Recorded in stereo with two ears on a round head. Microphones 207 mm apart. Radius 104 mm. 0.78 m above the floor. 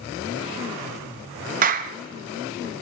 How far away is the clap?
About 0.8 m.